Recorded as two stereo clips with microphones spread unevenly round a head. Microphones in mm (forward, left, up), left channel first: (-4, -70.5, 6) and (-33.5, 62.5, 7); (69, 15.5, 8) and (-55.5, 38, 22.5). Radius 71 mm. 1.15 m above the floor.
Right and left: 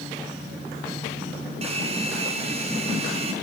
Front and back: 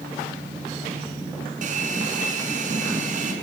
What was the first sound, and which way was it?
A hair dryer, 145° left.